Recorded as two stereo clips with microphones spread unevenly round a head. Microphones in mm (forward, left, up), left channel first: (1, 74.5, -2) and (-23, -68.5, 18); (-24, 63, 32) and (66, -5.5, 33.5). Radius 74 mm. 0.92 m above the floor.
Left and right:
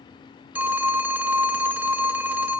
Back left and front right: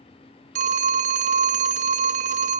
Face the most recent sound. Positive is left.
turn(degrees=-20)